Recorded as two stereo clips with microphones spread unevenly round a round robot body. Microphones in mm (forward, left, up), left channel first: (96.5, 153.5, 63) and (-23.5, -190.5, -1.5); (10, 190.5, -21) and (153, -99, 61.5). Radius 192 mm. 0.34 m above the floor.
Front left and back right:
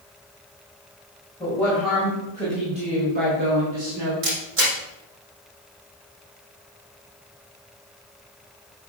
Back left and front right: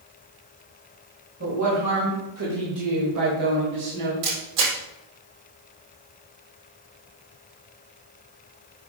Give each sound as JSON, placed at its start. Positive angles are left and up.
{"t": 1.4, "sound": "a woman speaking", "azimuth_deg": -20, "distance_m": 3.0}
{"t": 4.2, "sound": "a camera shutter", "azimuth_deg": -50, "distance_m": 4.0}